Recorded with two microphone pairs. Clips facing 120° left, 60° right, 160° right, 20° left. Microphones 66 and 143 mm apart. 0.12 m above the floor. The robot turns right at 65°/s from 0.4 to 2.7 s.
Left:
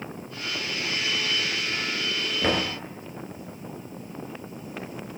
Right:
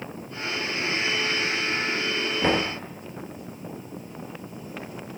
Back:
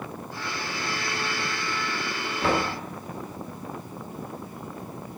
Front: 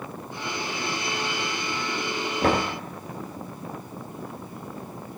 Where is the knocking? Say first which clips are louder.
Right 1 dB, front 2 dB; 35° left, 1.4 m; by 2.8 s 55° left, 1.4 m.